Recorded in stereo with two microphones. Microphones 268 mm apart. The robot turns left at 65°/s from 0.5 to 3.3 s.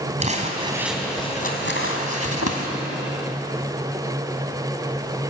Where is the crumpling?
25° right (ahead or behind), 3 m; by 2.7 s 60° left (ahead or behind), 3 m.